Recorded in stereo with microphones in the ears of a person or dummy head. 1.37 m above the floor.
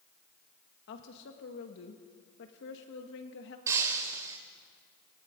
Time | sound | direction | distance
0.9 | a woman speaking | 65° left (ahead or behind) | 1.5 m
3.7 | breaking glass | 20° right (ahead or behind) | 2.5 m